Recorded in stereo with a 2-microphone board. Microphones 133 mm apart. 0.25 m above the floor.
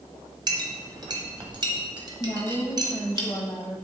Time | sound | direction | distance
0.5 | a clink | 35° right (ahead or behind) | 1.1 m
2.2 | a woman speaking | 25° left (ahead or behind) | 1.0 m